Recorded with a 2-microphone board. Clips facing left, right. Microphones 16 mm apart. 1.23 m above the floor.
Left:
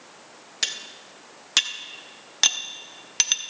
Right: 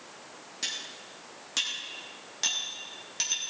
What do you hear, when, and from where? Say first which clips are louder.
0.6 s cutlery clinking: left 6 dB; 40° left (ahead or behind), 0.8 m